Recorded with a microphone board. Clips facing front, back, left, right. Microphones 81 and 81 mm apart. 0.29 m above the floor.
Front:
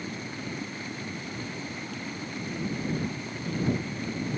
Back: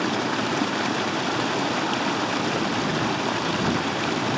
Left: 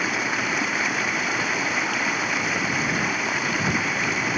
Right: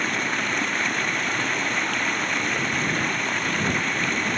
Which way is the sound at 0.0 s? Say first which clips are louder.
Back 13 dB, left 1 dB; 175° left.